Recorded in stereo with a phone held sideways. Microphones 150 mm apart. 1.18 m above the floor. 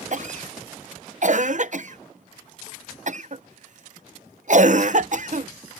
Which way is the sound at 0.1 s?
55° right (ahead or behind).